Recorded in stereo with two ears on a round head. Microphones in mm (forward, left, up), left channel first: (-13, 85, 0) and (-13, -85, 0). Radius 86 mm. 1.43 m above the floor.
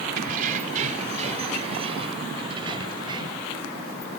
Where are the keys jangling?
50° right (ahead or behind); by 3.5 s 25° right (ahead or behind).